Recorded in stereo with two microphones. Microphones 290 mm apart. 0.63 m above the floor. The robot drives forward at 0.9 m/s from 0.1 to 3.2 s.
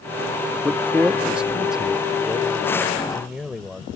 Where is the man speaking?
5° right (ahead or behind); by 3.9 s centre (ahead or behind).